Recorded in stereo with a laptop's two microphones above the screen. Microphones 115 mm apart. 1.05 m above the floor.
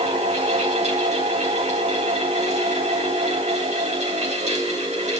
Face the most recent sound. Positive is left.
turn(degrees=-80)